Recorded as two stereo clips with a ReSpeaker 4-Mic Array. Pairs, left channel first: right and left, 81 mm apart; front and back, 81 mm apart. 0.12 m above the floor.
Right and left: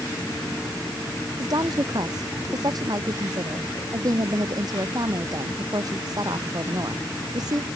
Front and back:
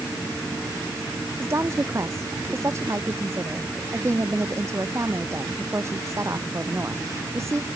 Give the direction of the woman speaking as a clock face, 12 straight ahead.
8 o'clock.